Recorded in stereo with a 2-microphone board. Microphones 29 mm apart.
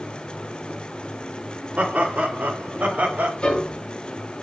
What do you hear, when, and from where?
1.8 s laughter: 65° right (ahead or behind), 2.5 m; by 3.3 s 75° right (ahead or behind), 3.5 m
3.4 s a piano: 30° left (ahead or behind), 5 m